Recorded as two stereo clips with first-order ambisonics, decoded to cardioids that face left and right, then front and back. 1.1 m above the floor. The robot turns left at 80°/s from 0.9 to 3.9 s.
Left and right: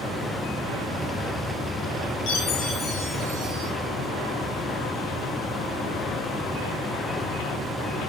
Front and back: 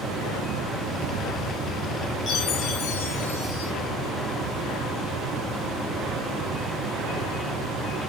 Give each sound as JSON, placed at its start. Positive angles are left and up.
{"t": 2.3, "sound": "a chime", "azimuth_deg": 60, "distance_m": 2.5}